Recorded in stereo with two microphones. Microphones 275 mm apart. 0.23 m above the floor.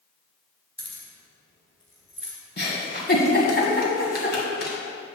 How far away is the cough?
No cough in this recording.